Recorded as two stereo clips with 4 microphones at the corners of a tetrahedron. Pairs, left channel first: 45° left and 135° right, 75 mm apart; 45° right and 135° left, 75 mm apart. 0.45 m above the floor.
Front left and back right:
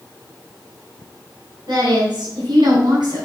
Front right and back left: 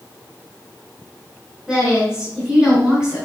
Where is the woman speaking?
145° right, 3.5 m.